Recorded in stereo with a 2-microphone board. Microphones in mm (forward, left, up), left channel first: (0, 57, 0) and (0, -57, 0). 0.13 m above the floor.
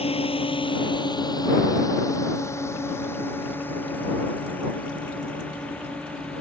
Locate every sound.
0.0 s a drone: 60° left (ahead or behind); by 6.4 s 10° left (ahead or behind)